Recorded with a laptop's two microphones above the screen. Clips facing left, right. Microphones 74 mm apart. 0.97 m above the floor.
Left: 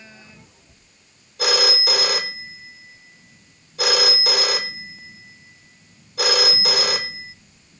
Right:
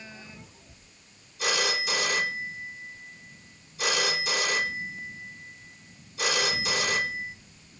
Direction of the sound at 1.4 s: 70° left (ahead or behind).